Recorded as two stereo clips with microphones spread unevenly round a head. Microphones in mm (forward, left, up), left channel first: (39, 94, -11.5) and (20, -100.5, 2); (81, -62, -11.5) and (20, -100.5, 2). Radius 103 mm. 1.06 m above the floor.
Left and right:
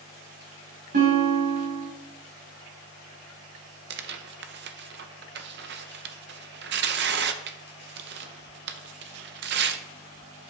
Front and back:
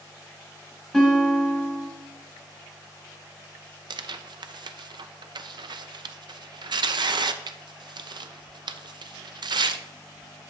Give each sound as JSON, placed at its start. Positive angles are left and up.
{"t": 0.9, "sound": "a guitar", "azimuth_deg": -50, "distance_m": 5.5}
{"t": 3.9, "sound": "tearing paper", "azimuth_deg": -135, "distance_m": 0.8}